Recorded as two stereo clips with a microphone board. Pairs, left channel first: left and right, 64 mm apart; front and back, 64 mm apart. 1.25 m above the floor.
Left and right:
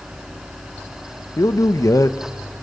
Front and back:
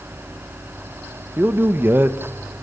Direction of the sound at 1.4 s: 125° left.